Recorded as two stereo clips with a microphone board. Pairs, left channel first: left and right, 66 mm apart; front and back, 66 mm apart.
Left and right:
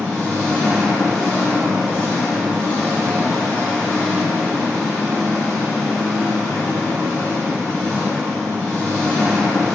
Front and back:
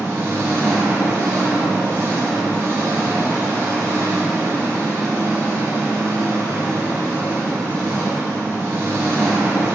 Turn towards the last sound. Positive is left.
turn(degrees=140)